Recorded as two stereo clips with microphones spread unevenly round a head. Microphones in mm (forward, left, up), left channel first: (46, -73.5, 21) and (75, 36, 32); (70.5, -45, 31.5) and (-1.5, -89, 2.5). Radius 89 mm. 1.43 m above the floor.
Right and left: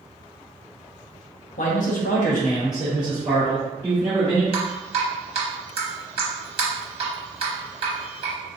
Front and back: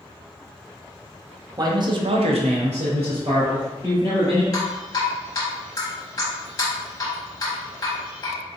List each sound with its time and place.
1.6 s a man speaking: 95° right, 0.9 m; by 4.4 s 135° left, 2.0 m
4.5 s dripping: 65° left, 1.1 m